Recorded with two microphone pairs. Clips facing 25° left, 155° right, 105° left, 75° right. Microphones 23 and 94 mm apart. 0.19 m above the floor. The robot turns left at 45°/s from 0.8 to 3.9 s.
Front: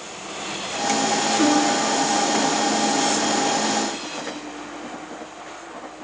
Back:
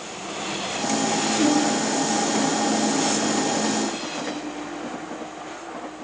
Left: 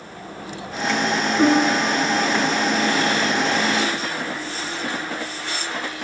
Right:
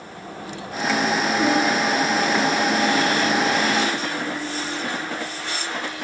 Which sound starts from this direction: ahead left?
A piano, at 1.4 s.